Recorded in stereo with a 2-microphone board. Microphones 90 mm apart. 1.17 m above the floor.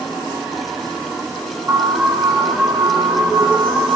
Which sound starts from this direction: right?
An alarm, at 1.7 s.